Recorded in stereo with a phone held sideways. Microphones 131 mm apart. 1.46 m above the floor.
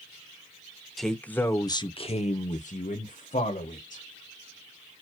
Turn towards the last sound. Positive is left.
turn(degrees=75)  # may be behind; listen again after turning